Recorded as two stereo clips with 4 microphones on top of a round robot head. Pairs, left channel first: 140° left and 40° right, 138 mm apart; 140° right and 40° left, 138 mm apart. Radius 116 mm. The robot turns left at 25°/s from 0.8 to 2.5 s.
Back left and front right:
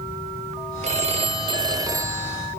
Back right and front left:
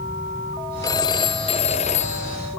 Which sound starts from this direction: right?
A phone ringing, at 0.8 s.